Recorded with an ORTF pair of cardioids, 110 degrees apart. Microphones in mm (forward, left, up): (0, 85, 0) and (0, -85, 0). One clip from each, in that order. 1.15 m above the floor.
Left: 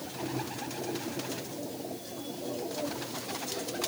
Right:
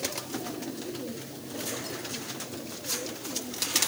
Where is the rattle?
No rattle in this recording.